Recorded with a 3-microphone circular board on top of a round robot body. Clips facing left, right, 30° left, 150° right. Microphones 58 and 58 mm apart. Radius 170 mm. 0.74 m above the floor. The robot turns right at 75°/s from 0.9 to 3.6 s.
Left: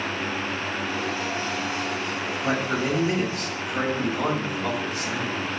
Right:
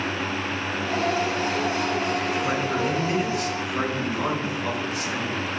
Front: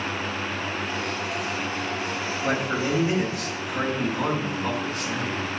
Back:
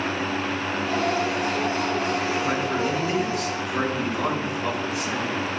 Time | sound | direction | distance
2.4 | a man speaking | 50° left | 4.5 m